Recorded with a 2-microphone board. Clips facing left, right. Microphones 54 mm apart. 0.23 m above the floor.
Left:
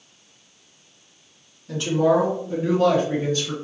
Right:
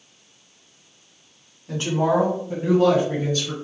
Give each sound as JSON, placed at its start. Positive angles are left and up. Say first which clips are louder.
{"t": 1.7, "sound": "a woman speaking", "louder": "left 2 dB", "side_deg": -40, "distance_m": 1.7}